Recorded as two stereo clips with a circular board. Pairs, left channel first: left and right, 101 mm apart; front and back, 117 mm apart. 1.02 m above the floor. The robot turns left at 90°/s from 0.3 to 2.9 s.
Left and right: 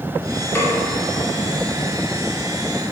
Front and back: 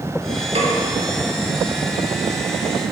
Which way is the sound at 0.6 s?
155° left.